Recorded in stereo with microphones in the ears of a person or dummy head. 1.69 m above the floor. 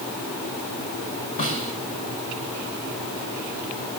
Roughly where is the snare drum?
Left.